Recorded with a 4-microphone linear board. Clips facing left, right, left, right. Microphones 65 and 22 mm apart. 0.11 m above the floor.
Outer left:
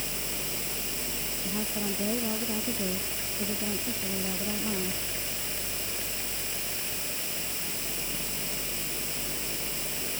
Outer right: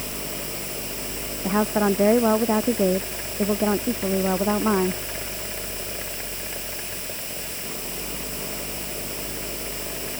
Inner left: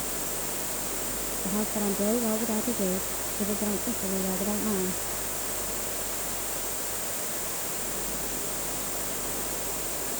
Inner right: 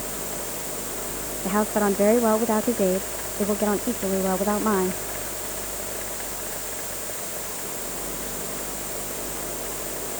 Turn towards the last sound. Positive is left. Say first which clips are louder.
# outer right 14 dB, inner right 8 dB
turn(degrees=-80)